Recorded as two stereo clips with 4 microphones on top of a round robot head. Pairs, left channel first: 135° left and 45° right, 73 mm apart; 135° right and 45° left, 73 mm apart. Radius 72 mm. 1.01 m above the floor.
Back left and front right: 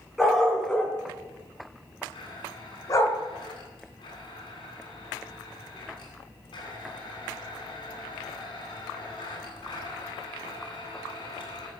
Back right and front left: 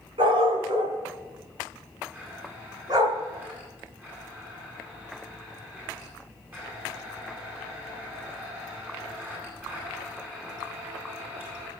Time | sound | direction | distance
0.2 | a dog barking | 40° left | 4 m
2.1 | a blender | 115° left | 9 m